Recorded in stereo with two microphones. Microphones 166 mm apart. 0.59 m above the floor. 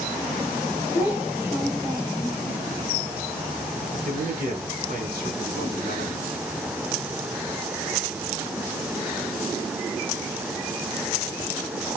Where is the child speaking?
15° right (ahead or behind), 1.9 m.